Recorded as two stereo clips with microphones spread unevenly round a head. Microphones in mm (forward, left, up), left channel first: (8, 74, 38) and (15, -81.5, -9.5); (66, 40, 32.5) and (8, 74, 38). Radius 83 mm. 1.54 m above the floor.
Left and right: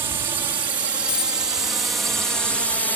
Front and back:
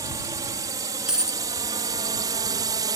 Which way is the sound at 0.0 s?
155° right.